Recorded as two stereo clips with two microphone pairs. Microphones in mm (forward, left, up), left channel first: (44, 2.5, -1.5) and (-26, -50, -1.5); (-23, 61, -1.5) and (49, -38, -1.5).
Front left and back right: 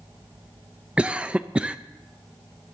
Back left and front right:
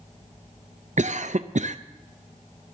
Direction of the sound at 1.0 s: 65° right.